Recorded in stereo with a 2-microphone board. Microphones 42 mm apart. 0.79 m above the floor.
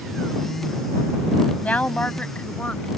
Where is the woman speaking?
35° left (ahead or behind); by 2.9 s 30° left (ahead or behind).